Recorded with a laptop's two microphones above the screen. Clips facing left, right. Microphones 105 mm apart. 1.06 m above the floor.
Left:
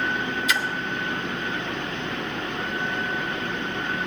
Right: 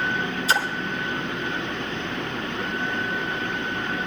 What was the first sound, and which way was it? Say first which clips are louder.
A splash: right 4 dB; 35° right (ahead or behind).